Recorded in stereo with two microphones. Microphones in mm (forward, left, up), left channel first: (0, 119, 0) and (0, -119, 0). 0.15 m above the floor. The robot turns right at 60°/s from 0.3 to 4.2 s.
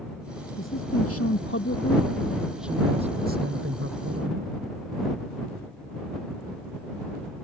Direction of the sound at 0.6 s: 60° left.